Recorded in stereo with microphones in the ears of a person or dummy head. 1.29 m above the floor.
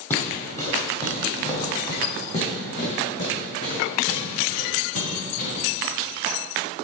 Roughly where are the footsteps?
Centre.